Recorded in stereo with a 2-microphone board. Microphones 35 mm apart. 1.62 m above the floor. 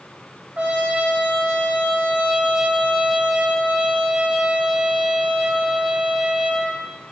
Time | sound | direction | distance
0.6 | a trumpet | 35° right (ahead or behind) | 0.6 m